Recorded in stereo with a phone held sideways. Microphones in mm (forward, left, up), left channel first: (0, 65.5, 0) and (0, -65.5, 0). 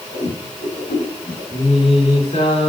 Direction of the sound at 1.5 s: 55° left (ahead or behind).